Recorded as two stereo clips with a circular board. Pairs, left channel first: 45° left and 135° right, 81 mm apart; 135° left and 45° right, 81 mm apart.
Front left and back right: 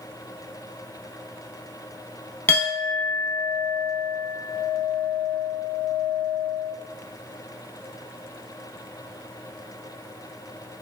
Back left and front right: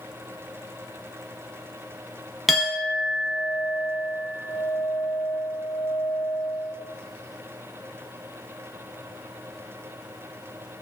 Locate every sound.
2.5 s a clink: 45° left, 0.7 m